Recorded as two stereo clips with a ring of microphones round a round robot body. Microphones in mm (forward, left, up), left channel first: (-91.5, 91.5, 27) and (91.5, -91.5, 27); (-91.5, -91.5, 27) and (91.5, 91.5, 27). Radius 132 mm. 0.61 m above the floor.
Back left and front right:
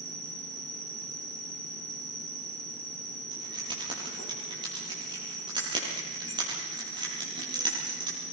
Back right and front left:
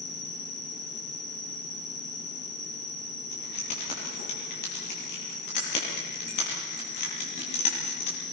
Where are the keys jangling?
120° right, 9.5 m.